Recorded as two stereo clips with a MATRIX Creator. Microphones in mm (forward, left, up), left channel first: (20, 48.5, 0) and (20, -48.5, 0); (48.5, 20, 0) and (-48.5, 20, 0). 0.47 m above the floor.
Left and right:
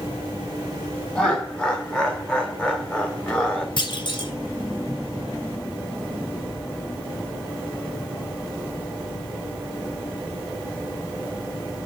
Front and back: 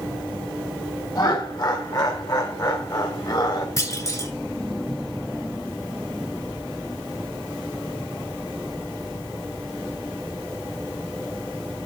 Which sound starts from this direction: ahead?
Laughter, at 1.1 s.